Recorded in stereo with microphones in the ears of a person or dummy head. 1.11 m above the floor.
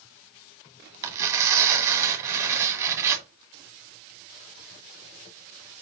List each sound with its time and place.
1.0 s tearing paper: 15° right (ahead or behind), 2 m